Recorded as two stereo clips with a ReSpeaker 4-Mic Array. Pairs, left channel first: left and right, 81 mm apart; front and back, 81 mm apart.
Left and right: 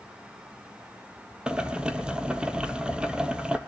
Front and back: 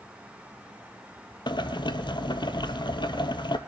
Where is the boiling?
10° right, 0.8 m.